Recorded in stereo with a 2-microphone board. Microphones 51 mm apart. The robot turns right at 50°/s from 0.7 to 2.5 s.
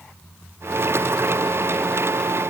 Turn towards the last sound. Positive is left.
No sound to turn to.